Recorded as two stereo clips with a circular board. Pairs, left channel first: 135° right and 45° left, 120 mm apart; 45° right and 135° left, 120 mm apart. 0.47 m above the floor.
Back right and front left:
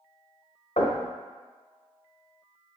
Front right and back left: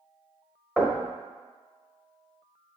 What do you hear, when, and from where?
0.8 s knocking: 125° right, 1.2 m